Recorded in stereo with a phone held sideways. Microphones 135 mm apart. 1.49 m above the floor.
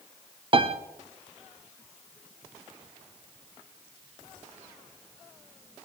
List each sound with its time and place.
0.5 s a piano: 40° right (ahead or behind), 0.7 m